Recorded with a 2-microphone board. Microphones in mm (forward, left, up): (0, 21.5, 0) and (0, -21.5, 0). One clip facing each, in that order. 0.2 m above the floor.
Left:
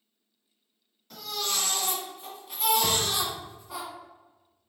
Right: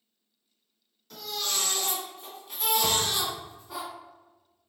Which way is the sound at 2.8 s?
15° left (ahead or behind).